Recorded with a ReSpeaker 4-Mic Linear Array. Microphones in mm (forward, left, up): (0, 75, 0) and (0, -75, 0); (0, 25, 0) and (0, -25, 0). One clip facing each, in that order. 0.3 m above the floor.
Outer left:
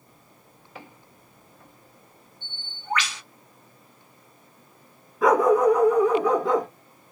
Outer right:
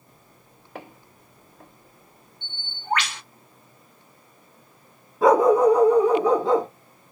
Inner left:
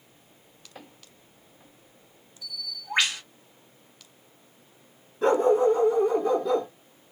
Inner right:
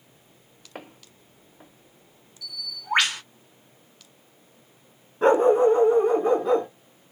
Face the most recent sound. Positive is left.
turn(degrees=-30)  # may be behind; listen again after turning